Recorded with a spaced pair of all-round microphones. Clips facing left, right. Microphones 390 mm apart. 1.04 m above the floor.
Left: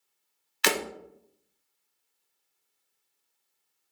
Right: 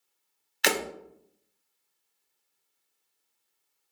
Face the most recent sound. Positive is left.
turn(degrees=15)  # may be behind; listen again after turning